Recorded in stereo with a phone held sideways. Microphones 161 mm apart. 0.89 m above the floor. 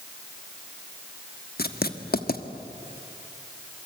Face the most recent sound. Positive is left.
turn(degrees=75)  # may be behind; listen again after turning